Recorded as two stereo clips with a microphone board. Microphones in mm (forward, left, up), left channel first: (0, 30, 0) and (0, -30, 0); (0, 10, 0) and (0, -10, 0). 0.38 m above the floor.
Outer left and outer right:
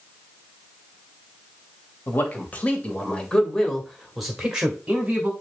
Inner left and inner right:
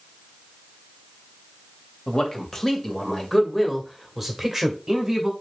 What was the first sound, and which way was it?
A man speaking, 35° left (ahead or behind).